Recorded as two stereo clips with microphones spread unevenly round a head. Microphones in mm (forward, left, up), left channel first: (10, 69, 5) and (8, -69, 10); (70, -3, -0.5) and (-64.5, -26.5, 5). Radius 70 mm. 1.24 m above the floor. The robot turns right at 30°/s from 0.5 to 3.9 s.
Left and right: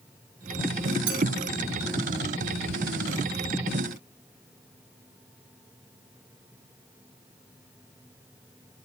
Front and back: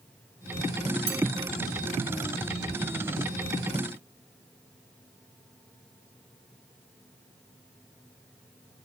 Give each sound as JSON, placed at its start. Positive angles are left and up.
{"t": 1.1, "sound": "a clink", "azimuth_deg": -125, "distance_m": 1.5}